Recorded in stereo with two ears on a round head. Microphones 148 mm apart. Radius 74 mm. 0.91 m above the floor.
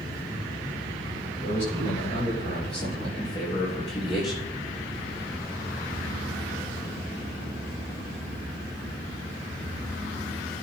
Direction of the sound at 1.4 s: 50° left (ahead or behind).